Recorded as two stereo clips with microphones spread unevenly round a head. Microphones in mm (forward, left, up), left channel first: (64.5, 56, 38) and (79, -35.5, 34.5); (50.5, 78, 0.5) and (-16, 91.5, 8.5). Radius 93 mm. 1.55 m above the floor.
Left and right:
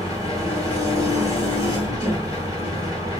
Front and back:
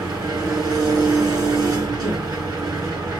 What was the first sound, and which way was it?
An engine running, 165° left.